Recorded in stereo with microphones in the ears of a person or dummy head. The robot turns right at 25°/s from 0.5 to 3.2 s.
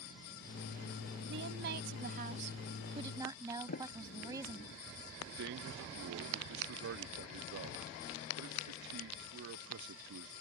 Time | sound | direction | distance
1.3 | a woman speaking | 65° right | ?
3.7 | a sliding door | 50° left (ahead or behind) | ?
5.3 | a man speaking | 60° right (ahead or behind) | ?